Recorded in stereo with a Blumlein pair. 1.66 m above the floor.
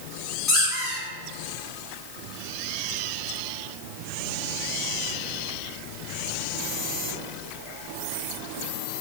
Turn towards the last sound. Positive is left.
turn(degrees=10)